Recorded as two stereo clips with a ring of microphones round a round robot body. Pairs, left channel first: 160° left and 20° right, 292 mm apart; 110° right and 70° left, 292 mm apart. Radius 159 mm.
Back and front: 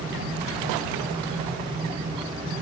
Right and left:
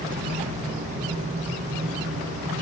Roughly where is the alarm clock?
I don't hear an alarm clock.